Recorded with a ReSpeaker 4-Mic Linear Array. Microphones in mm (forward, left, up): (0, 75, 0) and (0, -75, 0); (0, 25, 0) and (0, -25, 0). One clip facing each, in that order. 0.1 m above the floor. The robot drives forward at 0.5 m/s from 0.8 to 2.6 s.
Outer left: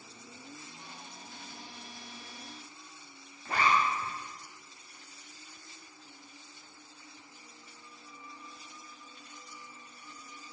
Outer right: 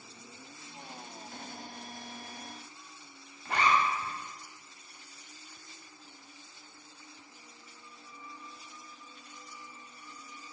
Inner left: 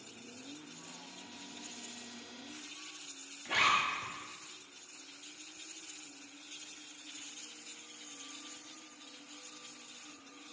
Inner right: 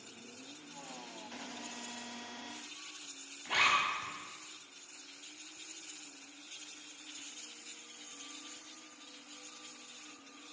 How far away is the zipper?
About 0.8 m.